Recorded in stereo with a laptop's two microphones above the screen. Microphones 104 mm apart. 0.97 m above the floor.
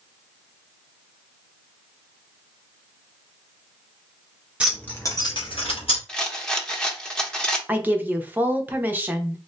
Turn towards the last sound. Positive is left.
turn(degrees=-20)  # may be behind; listen again after turning